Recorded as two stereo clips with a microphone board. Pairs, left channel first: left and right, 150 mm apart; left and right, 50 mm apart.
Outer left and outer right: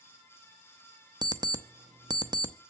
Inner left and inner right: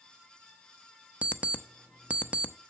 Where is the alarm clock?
30° right (ahead or behind), 0.6 m.